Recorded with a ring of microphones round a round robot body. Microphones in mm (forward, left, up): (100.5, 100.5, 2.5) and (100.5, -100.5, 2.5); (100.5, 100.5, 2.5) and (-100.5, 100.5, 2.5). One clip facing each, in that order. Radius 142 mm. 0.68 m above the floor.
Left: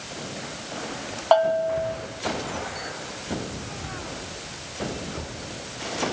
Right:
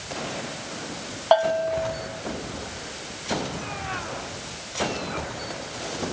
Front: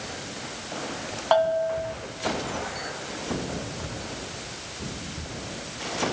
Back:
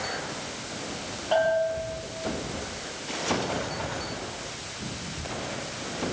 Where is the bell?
10° right, 2.0 m.